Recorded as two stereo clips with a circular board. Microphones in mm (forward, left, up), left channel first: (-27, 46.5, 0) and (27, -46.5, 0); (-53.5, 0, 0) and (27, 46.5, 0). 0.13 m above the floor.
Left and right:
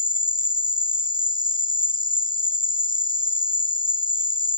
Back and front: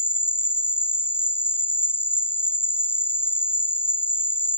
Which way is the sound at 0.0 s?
145° left.